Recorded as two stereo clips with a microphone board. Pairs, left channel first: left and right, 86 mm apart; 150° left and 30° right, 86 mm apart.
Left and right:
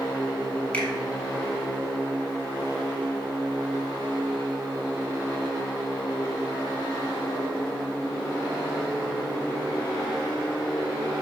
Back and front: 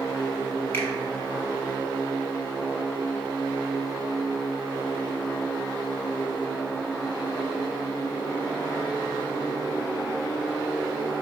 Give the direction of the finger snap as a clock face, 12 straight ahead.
8 o'clock.